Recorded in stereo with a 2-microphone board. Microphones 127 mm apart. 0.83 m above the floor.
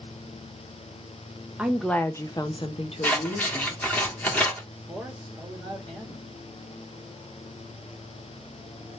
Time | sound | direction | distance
1.6 | a woman speaking | 10° right (ahead or behind) | 0.6 m
3.0 | scissors | 10° left (ahead or behind) | 1.5 m
4.7 | a man speaking | 10° right (ahead or behind) | 1.3 m